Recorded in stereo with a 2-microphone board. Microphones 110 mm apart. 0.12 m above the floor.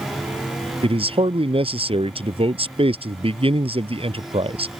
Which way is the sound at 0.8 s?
55° right (ahead or behind).